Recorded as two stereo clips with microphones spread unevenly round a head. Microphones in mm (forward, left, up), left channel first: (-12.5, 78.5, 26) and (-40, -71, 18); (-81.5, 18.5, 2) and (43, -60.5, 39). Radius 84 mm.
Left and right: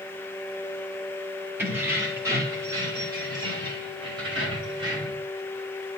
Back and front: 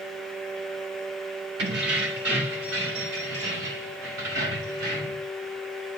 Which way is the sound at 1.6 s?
20° right.